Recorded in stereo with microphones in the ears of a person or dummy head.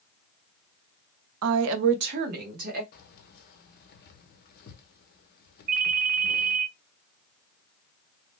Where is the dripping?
I don't hear dripping.